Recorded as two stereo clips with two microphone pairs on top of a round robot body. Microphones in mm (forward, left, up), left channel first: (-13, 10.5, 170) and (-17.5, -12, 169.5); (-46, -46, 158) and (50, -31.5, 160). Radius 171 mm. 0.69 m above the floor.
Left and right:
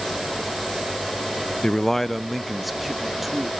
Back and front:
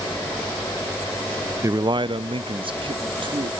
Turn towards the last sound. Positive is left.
turn(degrees=-25)